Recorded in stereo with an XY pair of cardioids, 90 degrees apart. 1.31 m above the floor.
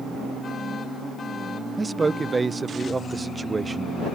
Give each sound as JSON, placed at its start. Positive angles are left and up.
{"t": 1.8, "sound": "a man speaking", "azimuth_deg": -30}